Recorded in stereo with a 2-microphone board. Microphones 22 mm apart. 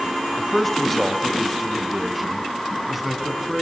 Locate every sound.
0.4 s a man speaking: 15° left (ahead or behind), 1.0 m; by 3.6 s 10° right (ahead or behind), 2 m